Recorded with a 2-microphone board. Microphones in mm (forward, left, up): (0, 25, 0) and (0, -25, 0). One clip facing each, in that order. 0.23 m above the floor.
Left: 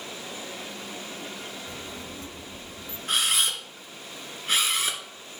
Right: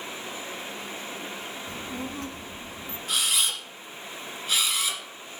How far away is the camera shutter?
About 1.8 m.